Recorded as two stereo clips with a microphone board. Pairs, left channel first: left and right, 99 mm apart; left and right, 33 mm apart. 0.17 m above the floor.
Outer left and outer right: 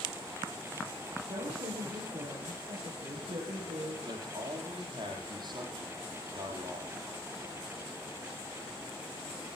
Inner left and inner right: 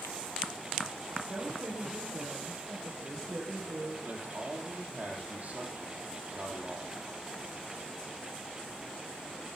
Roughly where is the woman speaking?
Right.